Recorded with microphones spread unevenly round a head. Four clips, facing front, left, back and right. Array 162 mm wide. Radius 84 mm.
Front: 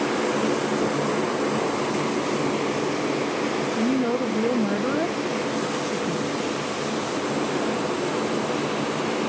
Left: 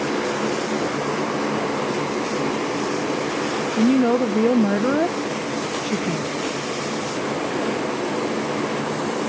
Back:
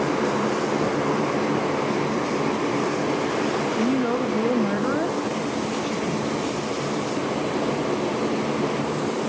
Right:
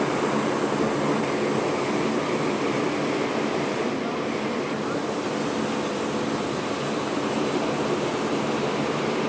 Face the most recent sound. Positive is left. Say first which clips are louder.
# left 9 dB, front 1 dB
turn(degrees=80)